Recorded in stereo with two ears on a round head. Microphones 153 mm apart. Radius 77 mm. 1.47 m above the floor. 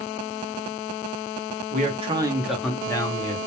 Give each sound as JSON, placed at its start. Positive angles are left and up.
{"t": 1.7, "sound": "a man speaking", "side_deg": -50, "distance_m": 0.7}